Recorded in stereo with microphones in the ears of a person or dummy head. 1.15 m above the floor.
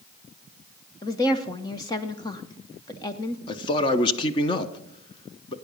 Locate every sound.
1.0 s a woman speaking: 15° left (ahead or behind), 0.6 m
3.5 s a man speaking: 25° left (ahead or behind), 0.7 m